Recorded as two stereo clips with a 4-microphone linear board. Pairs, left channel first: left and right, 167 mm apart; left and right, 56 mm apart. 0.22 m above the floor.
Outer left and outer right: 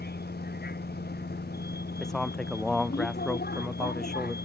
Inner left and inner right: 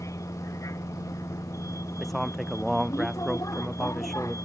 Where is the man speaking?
5° left (ahead or behind).